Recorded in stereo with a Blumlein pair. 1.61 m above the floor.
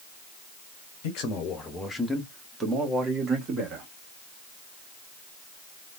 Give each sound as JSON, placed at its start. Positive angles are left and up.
{"t": 1.0, "sound": "a man speaking", "azimuth_deg": 45, "distance_m": 1.0}